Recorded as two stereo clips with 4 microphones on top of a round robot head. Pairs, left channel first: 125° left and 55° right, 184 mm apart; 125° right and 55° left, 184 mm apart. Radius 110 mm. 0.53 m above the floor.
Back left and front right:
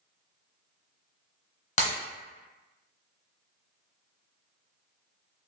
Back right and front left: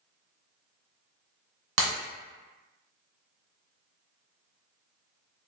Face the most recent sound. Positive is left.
turn(degrees=70)